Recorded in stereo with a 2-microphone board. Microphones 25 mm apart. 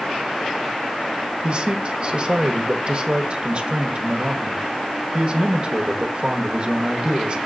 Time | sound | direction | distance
1.4 | a man speaking | 45° right (ahead or behind) | 0.9 m